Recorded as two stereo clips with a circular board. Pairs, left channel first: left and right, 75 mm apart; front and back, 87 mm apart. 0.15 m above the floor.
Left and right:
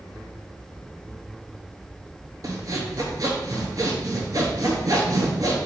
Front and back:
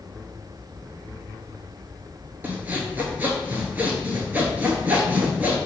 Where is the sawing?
115° right, 0.7 m.